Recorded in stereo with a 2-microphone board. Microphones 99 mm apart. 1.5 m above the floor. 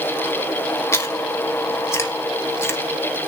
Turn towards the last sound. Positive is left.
turn(degrees=25)  # may be behind; listen again after turning